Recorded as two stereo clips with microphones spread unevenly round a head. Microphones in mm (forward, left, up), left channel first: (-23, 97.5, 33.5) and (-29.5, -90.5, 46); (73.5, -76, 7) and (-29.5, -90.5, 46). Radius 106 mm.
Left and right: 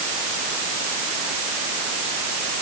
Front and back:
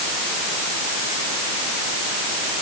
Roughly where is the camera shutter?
No camera shutter in this recording.